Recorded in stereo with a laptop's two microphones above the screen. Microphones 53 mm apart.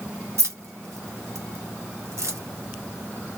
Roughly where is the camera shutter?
No camera shutter in this recording.